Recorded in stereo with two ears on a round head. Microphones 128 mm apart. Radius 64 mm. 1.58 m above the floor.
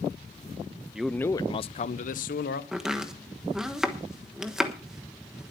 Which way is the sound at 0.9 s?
5° right (ahead or behind).